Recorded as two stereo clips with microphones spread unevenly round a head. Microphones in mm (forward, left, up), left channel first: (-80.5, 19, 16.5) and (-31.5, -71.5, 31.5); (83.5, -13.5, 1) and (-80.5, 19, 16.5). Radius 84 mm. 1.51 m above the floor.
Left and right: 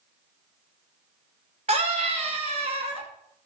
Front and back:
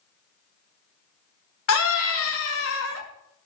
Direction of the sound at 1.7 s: 5° right.